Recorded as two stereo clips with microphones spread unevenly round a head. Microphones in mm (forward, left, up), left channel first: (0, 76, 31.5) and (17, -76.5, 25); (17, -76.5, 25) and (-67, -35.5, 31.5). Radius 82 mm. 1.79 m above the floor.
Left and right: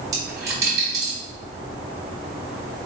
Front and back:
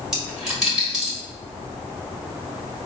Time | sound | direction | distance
0.1 | a dropped coin | 140° right | 1.2 m